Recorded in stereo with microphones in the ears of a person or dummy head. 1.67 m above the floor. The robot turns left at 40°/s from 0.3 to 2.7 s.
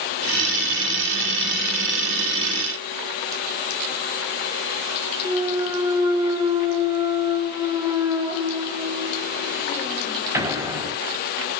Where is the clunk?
25° right (ahead or behind), 3 m.